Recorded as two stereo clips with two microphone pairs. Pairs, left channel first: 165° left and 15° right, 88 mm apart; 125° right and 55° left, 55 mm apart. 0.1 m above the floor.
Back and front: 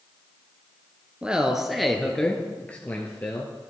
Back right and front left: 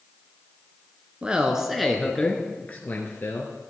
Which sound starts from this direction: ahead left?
A man speaking, at 1.2 s.